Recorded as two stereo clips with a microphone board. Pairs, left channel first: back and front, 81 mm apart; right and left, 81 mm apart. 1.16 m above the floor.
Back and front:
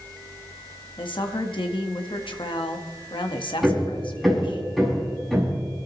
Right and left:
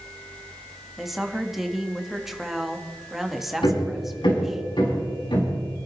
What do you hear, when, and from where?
1.0 s a woman speaking: 175° left, 1.5 m
3.6 s hammering: 90° right, 6.5 m